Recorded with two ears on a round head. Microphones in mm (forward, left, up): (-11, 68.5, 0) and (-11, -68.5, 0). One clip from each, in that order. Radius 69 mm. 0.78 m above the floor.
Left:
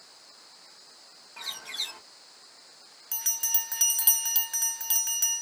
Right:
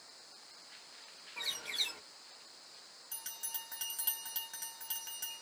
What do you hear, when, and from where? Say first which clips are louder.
1.4 s a bird: left 2 dB; 5° right (ahead or behind), 1.5 m
3.1 s a bell: left 16 dB; 35° left (ahead or behind), 0.7 m